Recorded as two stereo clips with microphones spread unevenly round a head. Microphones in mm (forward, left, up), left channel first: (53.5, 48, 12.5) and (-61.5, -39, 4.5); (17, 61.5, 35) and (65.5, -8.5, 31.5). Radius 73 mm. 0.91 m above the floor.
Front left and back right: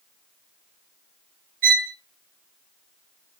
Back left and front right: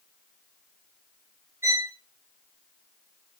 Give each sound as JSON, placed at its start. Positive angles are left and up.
{"t": 1.6, "sound": "a violin", "azimuth_deg": -125, "distance_m": 0.6}